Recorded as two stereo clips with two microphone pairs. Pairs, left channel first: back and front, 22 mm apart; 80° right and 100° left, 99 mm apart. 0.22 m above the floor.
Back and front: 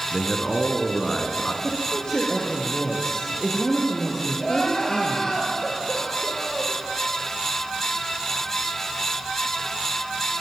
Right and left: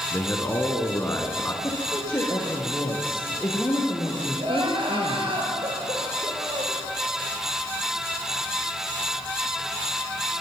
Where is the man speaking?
140° right, 3 m.